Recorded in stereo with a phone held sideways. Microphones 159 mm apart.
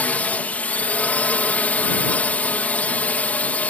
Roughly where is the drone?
Centre.